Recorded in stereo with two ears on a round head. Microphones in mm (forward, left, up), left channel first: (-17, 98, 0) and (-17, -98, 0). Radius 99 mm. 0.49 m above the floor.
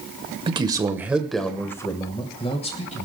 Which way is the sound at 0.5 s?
25° right (ahead or behind).